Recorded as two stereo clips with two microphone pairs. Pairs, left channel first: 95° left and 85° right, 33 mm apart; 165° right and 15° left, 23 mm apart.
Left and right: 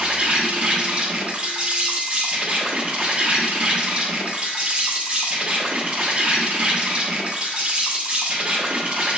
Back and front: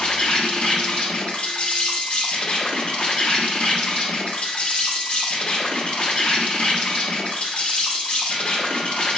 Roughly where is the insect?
Behind right.